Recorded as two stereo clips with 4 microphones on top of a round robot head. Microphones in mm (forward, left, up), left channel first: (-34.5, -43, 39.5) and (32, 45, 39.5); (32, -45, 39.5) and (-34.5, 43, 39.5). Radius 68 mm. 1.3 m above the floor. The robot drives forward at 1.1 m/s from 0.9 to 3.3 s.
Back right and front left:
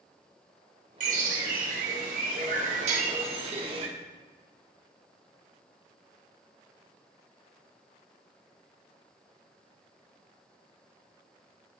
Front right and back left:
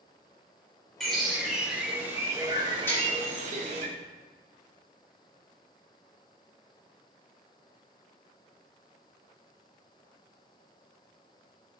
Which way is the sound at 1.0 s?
35° left.